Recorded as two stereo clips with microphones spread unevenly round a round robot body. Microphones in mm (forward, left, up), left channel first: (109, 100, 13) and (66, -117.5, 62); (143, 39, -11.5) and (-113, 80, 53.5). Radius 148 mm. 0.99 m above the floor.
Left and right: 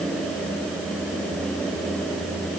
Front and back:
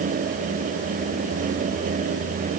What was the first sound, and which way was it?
Only background noise.